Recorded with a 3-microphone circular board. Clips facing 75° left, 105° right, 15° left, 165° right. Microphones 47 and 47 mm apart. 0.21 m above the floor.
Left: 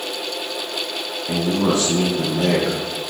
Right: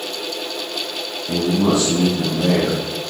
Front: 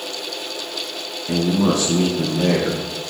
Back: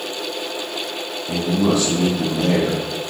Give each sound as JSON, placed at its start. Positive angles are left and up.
{"t": 1.3, "sound": "a man speaking", "azimuth_deg": 15, "distance_m": 3.0}